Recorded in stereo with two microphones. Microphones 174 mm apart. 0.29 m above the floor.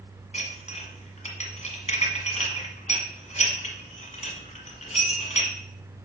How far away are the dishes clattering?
About 1.4 m.